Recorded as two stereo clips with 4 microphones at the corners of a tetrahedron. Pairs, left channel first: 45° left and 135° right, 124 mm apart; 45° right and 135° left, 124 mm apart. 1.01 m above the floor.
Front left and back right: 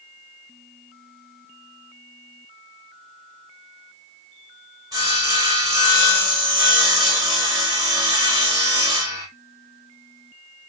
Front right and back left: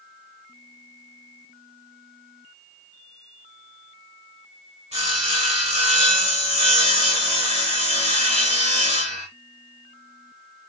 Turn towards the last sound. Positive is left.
turn(degrees=165)